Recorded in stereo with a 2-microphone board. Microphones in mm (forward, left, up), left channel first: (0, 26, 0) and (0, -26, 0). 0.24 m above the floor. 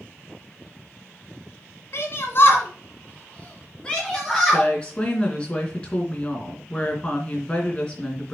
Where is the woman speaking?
20° left (ahead or behind), 2.5 m.